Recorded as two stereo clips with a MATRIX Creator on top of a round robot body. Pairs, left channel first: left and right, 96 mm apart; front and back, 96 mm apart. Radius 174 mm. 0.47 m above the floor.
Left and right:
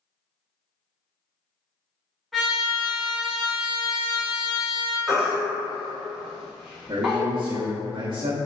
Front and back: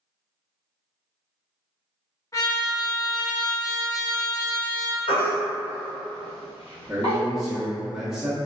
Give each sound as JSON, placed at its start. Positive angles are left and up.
{"t": 2.3, "sound": "a trumpet", "azimuth_deg": -5, "distance_m": 1.3}
{"t": 5.1, "sound": "a baby crying", "azimuth_deg": -5, "distance_m": 1.1}
{"t": 6.9, "sound": "a man speaking", "azimuth_deg": -100, "distance_m": 0.9}